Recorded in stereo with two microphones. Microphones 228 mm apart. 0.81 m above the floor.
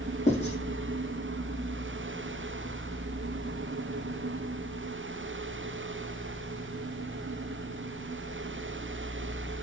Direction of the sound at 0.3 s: 30° left (ahead or behind).